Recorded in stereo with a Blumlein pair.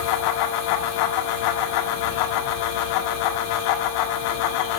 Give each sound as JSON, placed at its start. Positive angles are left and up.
{"t": 0.0, "sound": "a fan", "azimuth_deg": 45, "distance_m": 1.7}